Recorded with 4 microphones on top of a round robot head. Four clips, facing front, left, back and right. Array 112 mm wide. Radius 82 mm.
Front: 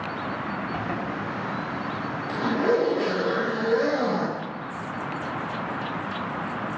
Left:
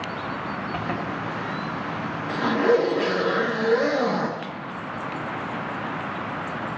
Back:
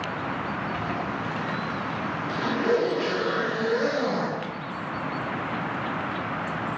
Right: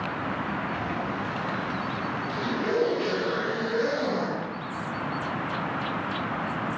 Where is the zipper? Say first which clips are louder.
Left 2 dB, even; 60° left, 2 m.